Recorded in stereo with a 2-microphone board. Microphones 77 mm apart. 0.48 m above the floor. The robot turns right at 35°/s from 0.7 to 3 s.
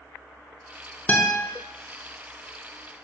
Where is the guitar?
25° left (ahead or behind), 0.6 m; by 1.4 s 35° left (ahead or behind), 0.6 m.